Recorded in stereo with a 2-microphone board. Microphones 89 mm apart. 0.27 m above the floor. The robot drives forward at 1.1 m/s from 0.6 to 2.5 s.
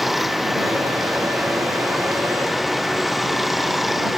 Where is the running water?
Centre (ahead or behind).